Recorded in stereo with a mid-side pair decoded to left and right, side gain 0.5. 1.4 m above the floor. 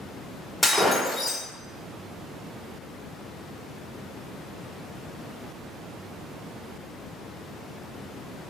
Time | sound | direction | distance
0.6 | breaking glass | 20° left | 2 m